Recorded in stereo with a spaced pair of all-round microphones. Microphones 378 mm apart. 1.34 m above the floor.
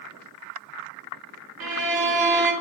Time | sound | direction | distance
1.6 | a violin | 65° right (ahead or behind) | 0.5 m